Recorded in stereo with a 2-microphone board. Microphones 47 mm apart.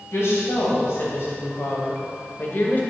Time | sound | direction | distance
0.1 | a woman speaking | 70° left (ahead or behind) | 3 m